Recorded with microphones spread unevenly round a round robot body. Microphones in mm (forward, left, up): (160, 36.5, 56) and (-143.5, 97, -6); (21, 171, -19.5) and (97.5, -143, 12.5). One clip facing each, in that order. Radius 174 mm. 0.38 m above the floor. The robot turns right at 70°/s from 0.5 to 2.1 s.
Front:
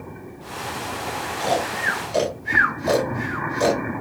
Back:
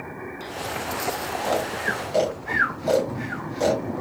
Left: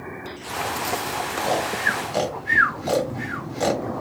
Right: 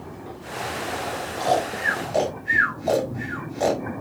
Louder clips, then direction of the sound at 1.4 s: Front 1 dB, right 2 dB; 10° left.